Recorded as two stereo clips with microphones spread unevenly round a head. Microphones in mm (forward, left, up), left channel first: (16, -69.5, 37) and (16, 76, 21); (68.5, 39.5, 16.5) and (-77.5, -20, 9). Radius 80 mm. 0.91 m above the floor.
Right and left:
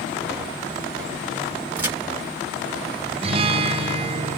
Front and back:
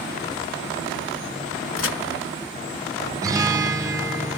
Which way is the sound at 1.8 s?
15° left.